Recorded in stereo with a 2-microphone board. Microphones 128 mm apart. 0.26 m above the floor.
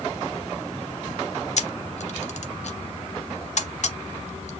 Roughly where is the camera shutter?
Left.